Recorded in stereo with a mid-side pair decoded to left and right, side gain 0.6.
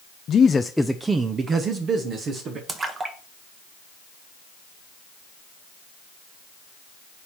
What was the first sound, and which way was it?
A man speaking, 45° left.